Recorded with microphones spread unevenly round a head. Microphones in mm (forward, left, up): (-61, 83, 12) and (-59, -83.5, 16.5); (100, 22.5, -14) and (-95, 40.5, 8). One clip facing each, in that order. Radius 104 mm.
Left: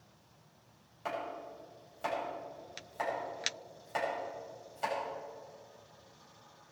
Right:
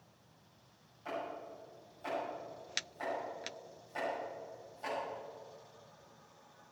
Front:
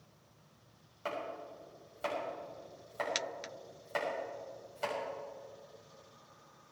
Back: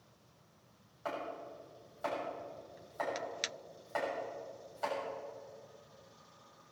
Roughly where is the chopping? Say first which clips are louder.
Left 2 dB, front 1 dB; ahead left.